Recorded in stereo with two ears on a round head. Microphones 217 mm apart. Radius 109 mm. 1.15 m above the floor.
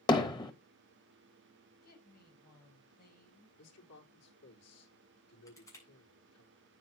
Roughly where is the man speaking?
Left.